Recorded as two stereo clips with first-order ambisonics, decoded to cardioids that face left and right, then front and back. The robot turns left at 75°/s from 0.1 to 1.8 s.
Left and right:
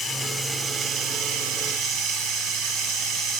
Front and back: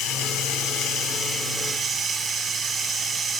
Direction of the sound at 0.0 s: 15° left.